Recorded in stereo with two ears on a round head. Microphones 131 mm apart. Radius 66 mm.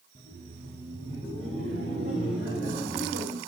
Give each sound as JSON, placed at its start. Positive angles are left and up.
{"t": 0.1, "sound": "laughter", "side_deg": -55, "distance_m": 3.0}